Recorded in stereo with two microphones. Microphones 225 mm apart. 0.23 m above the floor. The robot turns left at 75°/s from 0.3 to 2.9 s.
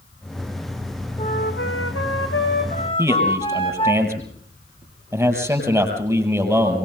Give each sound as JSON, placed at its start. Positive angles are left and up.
{"t": 1.2, "sound": "a flute", "azimuth_deg": 155, "distance_m": 5.0}
{"t": 3.0, "sound": "a man speaking", "side_deg": -10, "distance_m": 7.5}